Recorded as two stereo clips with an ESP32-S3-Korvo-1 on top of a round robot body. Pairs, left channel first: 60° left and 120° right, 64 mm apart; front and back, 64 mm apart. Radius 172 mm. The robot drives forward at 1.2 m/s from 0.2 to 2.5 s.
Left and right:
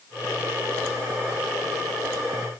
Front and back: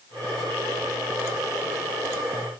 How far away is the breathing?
No breathing in this recording.